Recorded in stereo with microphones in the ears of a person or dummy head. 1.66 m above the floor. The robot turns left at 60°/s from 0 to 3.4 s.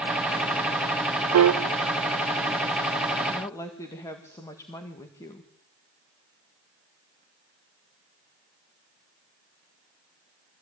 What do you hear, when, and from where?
1.3 s a piano: 85° right, 0.8 m; by 1.6 s 75° right (ahead or behind), 0.8 m
3.3 s a woman speaking: 5° left (ahead or behind), 1.9 m; by 5.5 s 10° left (ahead or behind), 1.9 m